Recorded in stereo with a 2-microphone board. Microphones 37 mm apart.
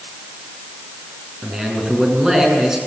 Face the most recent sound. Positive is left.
turn(degrees=-15)  # may be behind; listen again after turning